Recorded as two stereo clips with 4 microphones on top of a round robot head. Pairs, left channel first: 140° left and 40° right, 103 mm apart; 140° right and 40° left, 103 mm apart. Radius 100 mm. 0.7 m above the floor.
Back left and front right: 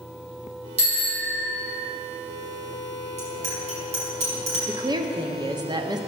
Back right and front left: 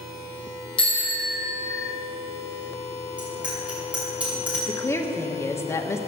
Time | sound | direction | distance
0.8 | a bicycle bell | 55° right | 4.5 m
3.2 | a bicycle bell | 35° right | 5.5 m
4.7 | a woman speaking | 80° right | 1.4 m